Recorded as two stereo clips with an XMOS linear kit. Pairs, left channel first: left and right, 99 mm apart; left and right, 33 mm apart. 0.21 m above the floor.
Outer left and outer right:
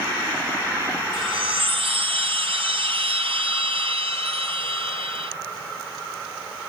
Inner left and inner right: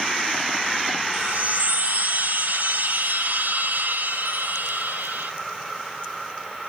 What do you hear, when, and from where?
1.1 s a chime: 65° right (ahead or behind), 1.1 m